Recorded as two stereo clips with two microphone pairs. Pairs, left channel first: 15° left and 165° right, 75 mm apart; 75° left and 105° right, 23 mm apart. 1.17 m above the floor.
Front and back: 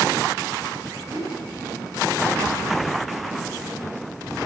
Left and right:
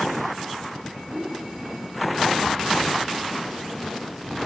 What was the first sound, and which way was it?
A whoosh, 130° right.